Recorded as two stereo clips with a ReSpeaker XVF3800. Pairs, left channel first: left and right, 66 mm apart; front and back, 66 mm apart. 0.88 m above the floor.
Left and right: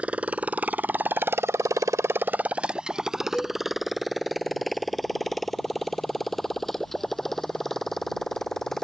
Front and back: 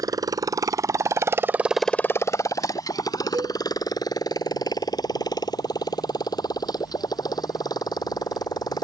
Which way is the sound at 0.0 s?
160° right.